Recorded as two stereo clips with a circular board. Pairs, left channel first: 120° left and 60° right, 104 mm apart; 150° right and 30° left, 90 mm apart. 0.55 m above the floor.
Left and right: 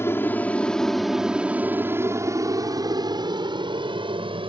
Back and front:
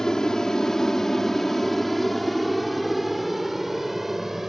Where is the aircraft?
135° left; by 4.5 s 55° right.